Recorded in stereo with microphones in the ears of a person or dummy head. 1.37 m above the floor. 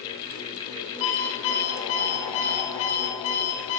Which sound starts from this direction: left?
An alarm clock, at 1.0 s.